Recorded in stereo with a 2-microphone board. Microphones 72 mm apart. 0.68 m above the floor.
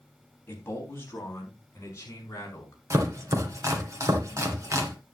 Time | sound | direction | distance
0.5 | a man speaking | 30° left (ahead or behind) | 4.5 m
2.9 | chopping | 45° right (ahead or behind) | 2 m